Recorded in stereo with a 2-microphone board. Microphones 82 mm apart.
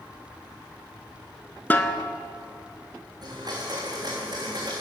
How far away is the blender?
About 2.5 m.